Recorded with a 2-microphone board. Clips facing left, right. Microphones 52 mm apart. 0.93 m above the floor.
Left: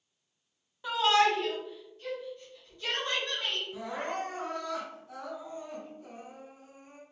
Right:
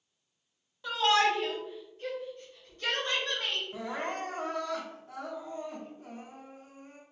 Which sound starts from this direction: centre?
A shout, at 0.8 s.